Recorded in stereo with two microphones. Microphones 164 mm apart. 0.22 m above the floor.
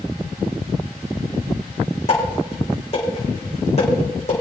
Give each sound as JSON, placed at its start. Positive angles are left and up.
{"t": 2.1, "sound": "dishes clattering", "side_deg": 45, "distance_m": 7.5}